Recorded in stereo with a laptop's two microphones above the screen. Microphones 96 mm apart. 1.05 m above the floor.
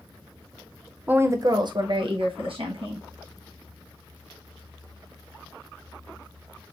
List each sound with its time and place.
1.1 s a woman speaking: 15° right (ahead or behind), 0.5 m; by 3.0 s 75° right (ahead or behind), 1.5 m